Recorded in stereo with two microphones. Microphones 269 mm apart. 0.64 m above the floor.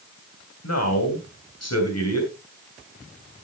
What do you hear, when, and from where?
0.6 s a man speaking: 70° left (ahead or behind), 3 m